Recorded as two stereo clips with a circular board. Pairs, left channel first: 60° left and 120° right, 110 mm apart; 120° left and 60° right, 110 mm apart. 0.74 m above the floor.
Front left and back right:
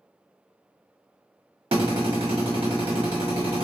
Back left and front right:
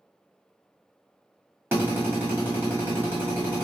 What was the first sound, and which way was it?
A drill, 125° right.